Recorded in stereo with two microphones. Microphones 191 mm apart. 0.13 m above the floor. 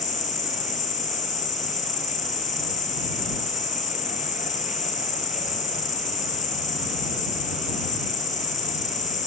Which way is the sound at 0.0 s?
40° left (ahead or behind).